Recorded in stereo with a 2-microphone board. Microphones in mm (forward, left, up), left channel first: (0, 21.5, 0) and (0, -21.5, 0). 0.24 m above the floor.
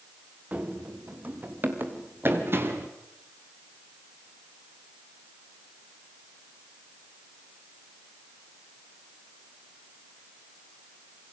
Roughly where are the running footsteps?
Right.